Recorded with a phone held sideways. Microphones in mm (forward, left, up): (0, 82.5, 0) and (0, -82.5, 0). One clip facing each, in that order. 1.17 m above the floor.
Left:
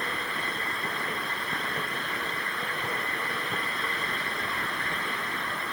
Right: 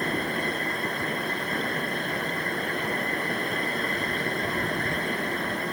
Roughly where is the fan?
Right.